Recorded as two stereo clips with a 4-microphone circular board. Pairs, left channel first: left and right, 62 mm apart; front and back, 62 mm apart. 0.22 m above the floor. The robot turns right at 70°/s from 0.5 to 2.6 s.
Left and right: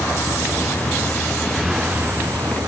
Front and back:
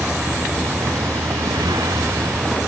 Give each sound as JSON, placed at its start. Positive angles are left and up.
{"t": 0.0, "sound": "a vehicle", "azimuth_deg": 105}